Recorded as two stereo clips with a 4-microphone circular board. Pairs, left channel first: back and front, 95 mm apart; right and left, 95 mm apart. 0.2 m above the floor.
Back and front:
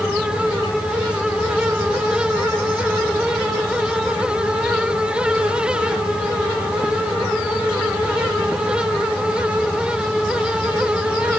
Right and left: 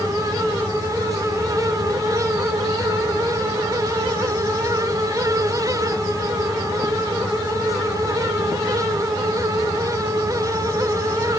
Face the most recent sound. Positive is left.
No sound to turn to.